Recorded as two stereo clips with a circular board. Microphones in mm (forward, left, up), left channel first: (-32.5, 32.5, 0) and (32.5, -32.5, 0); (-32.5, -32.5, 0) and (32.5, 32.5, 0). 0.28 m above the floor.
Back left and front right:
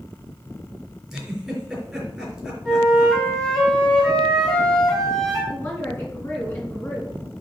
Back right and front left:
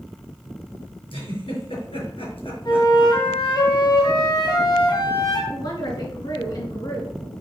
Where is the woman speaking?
165° right, 3.5 m.